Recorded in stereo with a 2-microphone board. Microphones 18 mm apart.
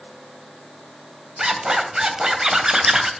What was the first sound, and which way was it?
A zipper, 25° right (ahead or behind).